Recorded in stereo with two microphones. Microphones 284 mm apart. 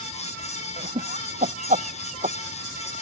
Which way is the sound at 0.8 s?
30° right (ahead or behind).